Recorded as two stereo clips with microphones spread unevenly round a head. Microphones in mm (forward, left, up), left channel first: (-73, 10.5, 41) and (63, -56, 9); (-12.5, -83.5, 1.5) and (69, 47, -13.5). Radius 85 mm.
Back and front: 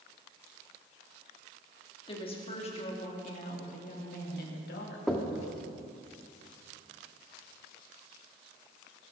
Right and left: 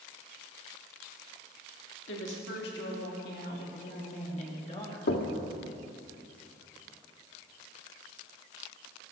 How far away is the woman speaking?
About 3 m.